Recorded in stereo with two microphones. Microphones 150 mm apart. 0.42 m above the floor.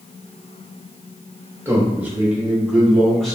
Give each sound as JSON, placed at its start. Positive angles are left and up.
{"t": 1.6, "sound": "a man speaking", "side_deg": -15, "distance_m": 1.6}